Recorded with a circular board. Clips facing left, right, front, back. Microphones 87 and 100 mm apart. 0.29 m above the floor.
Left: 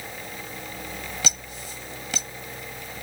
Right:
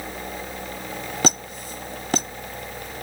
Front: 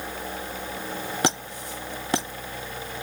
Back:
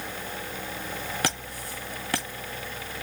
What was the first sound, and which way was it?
A squeak, 60° right.